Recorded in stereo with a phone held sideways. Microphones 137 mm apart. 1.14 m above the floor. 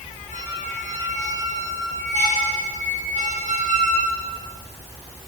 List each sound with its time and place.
0.3 s a squeak: 60° right (ahead or behind), 9 m